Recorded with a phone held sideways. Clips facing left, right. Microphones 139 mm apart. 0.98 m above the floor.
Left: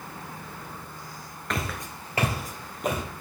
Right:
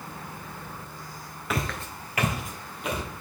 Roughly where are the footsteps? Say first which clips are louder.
Right 1 dB; centre.